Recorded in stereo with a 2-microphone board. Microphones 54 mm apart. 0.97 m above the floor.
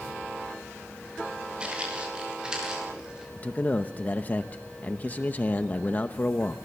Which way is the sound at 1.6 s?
20° right (ahead or behind).